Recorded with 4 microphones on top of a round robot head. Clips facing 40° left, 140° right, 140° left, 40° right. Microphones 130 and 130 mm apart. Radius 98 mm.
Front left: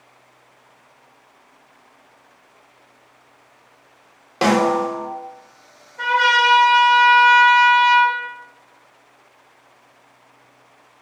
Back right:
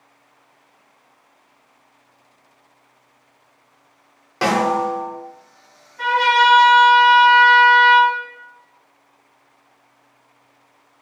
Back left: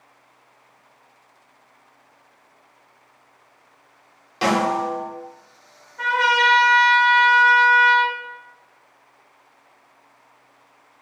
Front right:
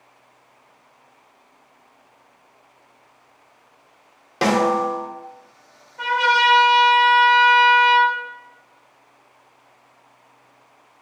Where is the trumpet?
25° left, 1.1 m.